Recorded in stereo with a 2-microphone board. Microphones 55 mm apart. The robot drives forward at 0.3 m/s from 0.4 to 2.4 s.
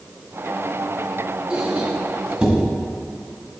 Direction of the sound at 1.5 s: 25° right (ahead or behind).